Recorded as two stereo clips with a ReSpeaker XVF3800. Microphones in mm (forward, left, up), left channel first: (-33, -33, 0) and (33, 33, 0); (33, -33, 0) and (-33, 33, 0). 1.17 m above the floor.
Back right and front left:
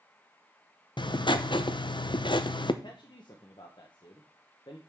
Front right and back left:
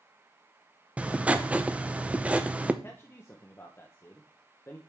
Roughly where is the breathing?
No breathing in this recording.